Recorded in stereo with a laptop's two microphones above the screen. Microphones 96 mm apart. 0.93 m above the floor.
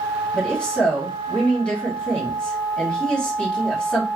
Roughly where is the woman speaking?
Centre.